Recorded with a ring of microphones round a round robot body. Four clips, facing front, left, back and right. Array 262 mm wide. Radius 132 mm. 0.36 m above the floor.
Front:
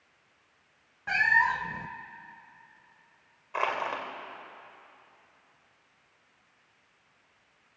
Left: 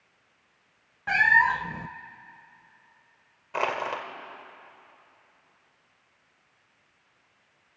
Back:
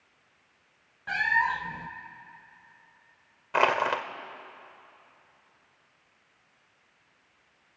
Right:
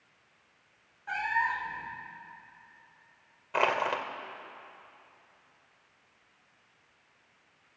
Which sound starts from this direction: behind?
Crushing, at 3.5 s.